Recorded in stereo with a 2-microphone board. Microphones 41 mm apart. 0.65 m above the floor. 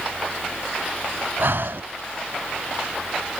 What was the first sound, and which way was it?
Breathing, 60° right (ahead or behind).